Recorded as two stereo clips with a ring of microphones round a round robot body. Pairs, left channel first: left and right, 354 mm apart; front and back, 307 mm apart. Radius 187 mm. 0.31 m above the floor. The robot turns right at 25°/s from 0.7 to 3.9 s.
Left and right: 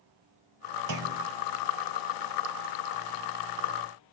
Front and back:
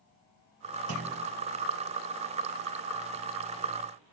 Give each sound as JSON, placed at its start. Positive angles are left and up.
{"t": 0.9, "sound": "a clunk", "azimuth_deg": -130, "distance_m": 0.7}